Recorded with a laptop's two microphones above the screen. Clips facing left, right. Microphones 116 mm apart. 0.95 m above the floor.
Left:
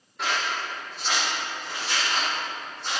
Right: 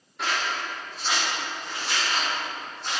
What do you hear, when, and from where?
0.2 s scissors: centre (ahead or behind), 1.0 m